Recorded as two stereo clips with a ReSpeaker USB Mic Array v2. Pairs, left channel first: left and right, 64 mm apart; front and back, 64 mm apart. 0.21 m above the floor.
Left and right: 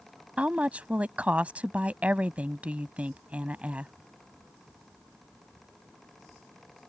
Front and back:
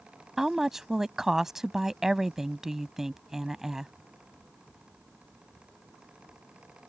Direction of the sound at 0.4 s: 110° right.